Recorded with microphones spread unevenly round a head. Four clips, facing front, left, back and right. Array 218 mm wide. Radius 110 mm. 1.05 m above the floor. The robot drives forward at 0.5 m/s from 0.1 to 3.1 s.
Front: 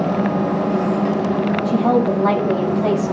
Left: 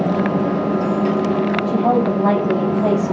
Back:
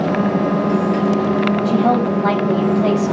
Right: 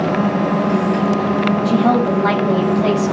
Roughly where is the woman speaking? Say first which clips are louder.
Right 2 dB, front 2 dB; behind right.